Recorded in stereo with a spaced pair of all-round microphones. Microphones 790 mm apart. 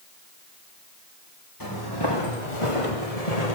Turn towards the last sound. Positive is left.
turn(degrees=55)  # may be behind; listen again after turning